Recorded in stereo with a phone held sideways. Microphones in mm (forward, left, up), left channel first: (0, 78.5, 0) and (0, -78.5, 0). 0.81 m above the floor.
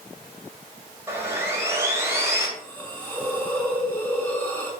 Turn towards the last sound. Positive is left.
turn(degrees=10)  # may be behind; listen again after turning